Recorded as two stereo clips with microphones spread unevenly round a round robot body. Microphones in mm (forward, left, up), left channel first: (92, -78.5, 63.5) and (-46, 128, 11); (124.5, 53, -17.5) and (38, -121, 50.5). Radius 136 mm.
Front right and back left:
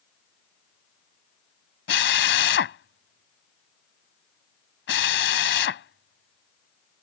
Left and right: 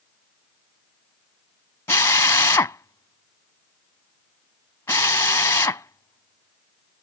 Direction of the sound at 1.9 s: 15° right.